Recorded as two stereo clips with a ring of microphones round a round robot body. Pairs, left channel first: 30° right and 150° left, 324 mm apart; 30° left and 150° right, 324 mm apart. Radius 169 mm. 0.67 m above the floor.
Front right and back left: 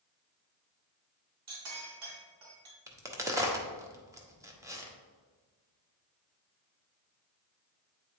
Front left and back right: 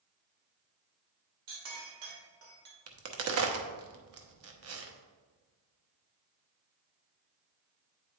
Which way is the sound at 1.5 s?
170° right.